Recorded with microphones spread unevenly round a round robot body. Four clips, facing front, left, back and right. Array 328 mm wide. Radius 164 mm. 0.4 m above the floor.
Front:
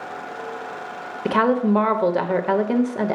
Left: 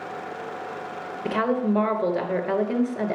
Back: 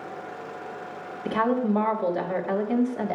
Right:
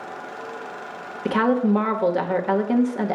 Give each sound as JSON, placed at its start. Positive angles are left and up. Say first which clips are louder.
{"t": 1.2, "sound": "a woman speaking", "louder": "right 4 dB, front 5 dB", "azimuth_deg": -5, "distance_m": 1.5}